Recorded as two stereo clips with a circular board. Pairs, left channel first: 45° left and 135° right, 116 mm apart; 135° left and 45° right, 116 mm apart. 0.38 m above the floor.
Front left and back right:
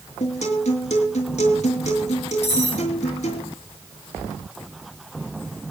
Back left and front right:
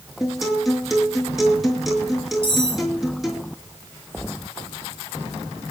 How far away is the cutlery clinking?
About 4.5 m.